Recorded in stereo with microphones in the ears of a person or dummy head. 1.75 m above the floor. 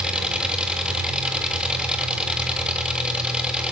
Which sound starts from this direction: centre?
An engine running, at 0.0 s.